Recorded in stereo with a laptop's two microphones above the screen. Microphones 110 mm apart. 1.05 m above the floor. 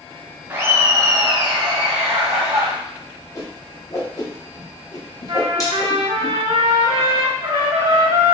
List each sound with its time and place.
0.5 s laughter: 20° right (ahead or behind), 1.0 m; by 2.7 s 70° right (ahead or behind), 1.4 m
3.4 s a whoosh: 30° left (ahead or behind), 0.9 m
5.3 s a trumpet: 60° right (ahead or behind), 1.7 m